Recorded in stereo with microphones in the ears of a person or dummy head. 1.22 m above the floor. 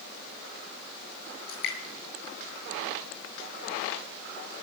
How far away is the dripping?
About 9 m.